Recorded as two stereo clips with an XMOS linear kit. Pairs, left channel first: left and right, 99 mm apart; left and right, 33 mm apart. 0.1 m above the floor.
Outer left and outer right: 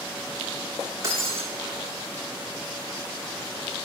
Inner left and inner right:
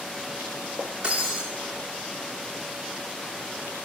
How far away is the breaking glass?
About 8 m.